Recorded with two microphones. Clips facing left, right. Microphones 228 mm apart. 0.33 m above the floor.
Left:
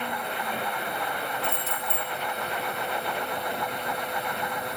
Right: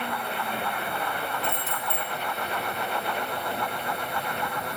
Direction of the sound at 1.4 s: 15° right (ahead or behind).